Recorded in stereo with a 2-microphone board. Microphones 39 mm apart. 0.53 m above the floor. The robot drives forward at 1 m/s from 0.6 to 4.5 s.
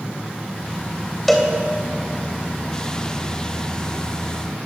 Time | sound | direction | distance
1.3 | a cowbell | 5° left (ahead or behind) | 3 m